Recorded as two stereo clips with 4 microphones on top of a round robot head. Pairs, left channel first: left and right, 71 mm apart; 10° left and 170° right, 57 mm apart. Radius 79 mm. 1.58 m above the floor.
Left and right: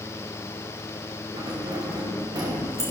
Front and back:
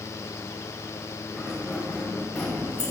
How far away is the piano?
I don't hear a piano.